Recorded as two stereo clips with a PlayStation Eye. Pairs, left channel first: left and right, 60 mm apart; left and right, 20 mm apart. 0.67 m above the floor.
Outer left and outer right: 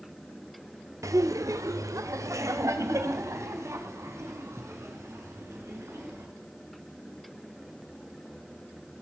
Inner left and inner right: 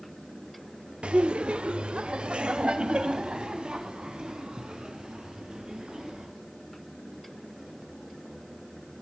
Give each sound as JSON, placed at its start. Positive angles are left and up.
{"t": 1.0, "sound": "laughter", "side_deg": -60, "distance_m": 1.2}